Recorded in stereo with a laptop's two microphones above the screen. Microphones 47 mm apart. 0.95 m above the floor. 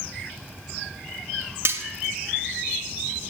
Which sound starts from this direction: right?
Cutlery clinking, at 1.6 s.